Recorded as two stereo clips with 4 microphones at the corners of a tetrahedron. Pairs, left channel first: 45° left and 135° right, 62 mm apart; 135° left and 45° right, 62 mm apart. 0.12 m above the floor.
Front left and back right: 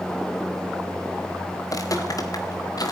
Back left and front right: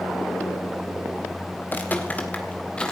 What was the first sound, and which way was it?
Footsteps, 75° left.